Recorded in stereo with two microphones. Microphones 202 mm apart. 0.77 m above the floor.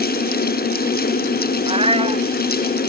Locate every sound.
1.7 s a cat meowing: 30° right (ahead or behind)